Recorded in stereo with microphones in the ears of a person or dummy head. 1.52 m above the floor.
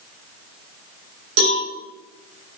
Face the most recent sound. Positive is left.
turn(degrees=-75)  # may be behind; listen again after turning